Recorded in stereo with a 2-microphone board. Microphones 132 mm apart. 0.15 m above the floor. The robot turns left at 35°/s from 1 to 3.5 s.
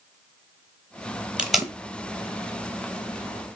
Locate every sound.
1.4 s tape being pulled: 10° right (ahead or behind), 0.7 m; by 1.7 s 5° left (ahead or behind), 0.7 m